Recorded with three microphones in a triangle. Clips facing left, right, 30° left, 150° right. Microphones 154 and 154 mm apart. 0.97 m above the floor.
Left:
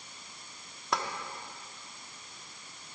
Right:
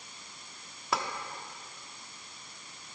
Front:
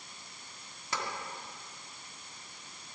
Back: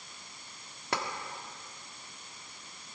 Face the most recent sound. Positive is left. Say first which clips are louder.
# even, back 3 dB
turn(degrees=180)